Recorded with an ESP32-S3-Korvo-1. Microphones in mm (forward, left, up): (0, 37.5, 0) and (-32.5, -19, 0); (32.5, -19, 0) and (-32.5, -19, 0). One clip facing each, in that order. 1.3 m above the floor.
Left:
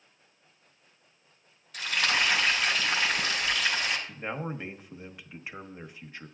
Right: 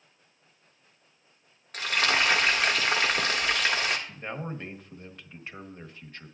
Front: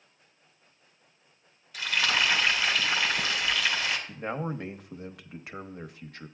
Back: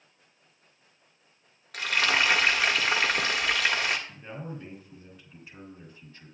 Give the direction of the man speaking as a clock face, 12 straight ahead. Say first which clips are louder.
Left 1 dB, front 7 dB; 1 o'clock.